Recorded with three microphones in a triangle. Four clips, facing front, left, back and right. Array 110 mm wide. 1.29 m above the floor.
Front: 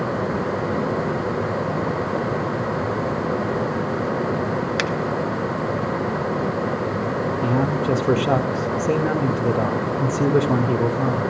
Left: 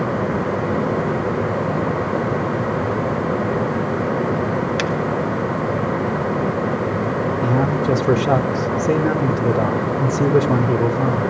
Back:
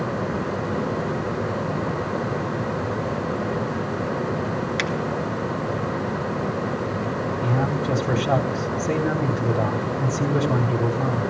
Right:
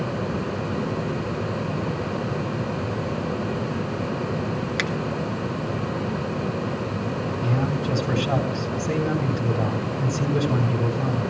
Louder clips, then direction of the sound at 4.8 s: Left 6 dB, front 2 dB; 25° left.